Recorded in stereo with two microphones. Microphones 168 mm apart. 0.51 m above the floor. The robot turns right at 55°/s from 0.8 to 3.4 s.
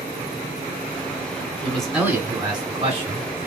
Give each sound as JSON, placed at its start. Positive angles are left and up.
{"t": 1.6, "sound": "a man speaking", "azimuth_deg": 165, "distance_m": 1.8}